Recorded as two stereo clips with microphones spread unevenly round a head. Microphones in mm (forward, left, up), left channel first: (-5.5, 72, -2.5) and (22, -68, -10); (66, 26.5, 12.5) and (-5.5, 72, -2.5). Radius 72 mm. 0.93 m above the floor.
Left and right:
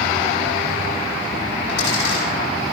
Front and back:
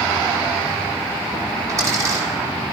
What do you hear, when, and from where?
1.7 s a dropped coin: 95° left, 9 m